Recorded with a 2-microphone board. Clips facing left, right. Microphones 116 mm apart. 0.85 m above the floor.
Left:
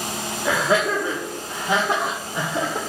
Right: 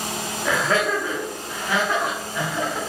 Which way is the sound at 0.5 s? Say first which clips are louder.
Left 1 dB; 10° left (ahead or behind).